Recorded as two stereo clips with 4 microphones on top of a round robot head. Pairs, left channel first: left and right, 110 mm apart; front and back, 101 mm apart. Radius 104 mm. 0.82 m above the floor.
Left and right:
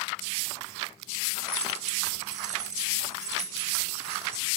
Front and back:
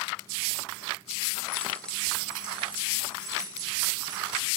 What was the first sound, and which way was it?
Keys jangling, 70° right.